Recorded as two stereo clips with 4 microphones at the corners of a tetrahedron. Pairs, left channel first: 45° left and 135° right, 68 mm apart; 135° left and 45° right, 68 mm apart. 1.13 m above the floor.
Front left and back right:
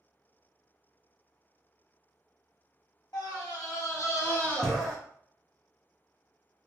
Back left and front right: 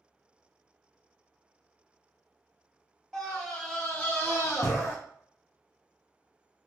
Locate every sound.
3.1 s a scream: 45° left, 1.9 m; by 5.0 s 145° left, 1.0 m